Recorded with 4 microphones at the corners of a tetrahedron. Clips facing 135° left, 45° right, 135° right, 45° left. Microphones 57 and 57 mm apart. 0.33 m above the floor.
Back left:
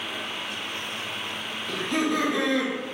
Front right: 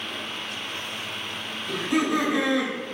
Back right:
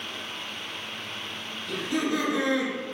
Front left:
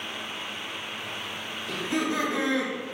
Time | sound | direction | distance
1.7 | laughter | 25° left | 0.9 m